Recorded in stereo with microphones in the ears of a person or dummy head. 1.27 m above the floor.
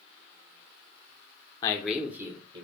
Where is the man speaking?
25° left (ahead or behind), 0.6 m; by 2.6 s 20° right (ahead or behind), 1.1 m.